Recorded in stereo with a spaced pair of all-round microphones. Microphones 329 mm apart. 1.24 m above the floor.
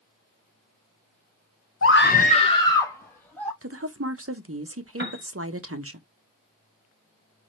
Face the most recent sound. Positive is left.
turn(degrees=-35)  # may be behind; listen again after turning